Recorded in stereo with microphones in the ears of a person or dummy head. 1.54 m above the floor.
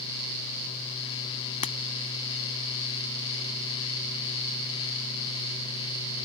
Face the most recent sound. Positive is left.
turn(degrees=35)  # may be behind; listen again after turning